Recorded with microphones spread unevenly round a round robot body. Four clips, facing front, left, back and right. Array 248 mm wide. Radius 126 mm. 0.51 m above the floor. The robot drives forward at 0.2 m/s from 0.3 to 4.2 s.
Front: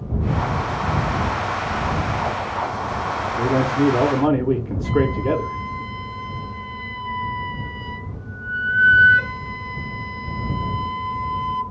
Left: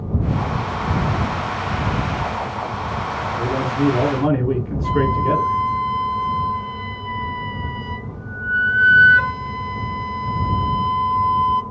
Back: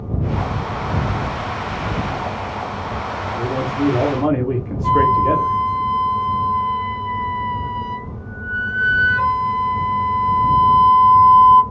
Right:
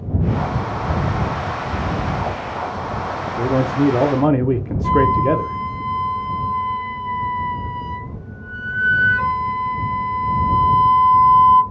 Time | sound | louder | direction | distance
3.4 | a man speaking | right 4 dB, front 2 dB | 65° right | 0.7 m
4.8 | a flute | right 4 dB, back 6 dB | 110° left | 0.6 m